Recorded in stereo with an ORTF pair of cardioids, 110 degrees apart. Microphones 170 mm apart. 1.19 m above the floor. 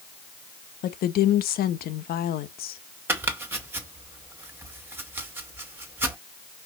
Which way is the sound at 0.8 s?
65° left.